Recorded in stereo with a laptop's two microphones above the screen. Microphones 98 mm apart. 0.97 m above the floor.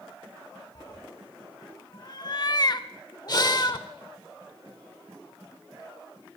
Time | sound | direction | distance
0.8 | a cat meowing | 45° left (ahead or behind) | 0.6 m
3.3 | breathing | 45° left (ahead or behind) | 0.8 m